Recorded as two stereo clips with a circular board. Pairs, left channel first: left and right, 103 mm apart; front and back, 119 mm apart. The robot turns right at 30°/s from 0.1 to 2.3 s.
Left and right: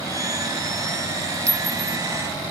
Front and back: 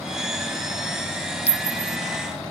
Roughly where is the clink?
Ahead left.